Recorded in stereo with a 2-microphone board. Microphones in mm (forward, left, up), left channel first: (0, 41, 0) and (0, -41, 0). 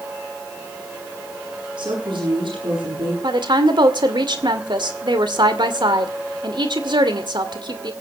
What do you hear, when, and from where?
1.8 s a woman speaking: 65° right (ahead or behind), 9 m
3.2 s a woman speaking: 65° right (ahead or behind), 2 m